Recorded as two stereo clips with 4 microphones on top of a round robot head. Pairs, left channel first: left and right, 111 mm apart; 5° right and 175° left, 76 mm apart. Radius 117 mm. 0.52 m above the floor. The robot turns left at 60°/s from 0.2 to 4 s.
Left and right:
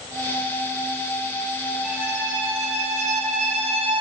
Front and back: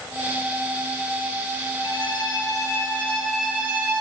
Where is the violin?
10° right, 6 m; by 4.0 s 135° right, 6 m.